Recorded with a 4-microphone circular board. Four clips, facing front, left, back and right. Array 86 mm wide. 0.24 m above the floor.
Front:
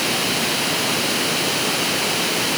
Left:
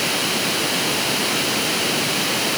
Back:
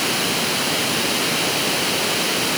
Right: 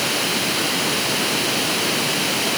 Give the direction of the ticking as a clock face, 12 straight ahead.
No ticking in this recording.